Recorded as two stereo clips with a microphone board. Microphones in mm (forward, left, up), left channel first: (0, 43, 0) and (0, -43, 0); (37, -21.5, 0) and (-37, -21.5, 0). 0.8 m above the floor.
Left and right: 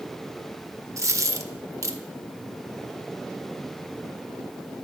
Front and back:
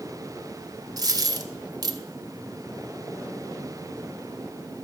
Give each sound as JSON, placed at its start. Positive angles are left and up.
{"t": 1.0, "sound": "a dropped coin", "azimuth_deg": -145, "distance_m": 0.7}